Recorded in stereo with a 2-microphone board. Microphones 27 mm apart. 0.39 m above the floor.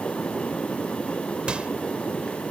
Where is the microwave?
45° right (ahead or behind).